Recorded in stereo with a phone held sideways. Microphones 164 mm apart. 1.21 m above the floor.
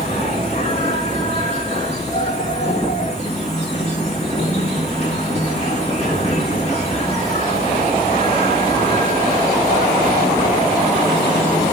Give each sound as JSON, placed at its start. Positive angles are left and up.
{"t": 0.0, "sound": "an insect", "side_deg": 40, "distance_m": 2.5}